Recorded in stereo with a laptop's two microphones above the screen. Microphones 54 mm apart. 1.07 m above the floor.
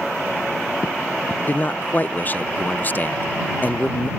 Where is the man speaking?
30° left (ahead or behind).